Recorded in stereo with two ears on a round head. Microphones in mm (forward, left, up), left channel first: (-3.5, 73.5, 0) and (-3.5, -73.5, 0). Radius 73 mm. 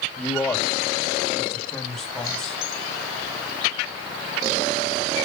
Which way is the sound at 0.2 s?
5° left (ahead or behind).